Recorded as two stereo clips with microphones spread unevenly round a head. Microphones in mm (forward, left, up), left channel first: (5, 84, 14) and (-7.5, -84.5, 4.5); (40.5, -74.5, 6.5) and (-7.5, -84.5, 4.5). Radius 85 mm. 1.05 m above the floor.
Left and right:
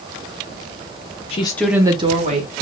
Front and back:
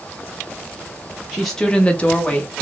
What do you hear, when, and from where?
1.3 s a woman speaking: 110° left, 0.7 m; by 2.5 s 50° right, 1.5 m